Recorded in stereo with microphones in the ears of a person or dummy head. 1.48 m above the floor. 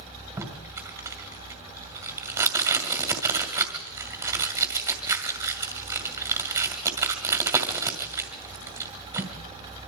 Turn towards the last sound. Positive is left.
turn(degrees=-20)  # may be behind; listen again after turning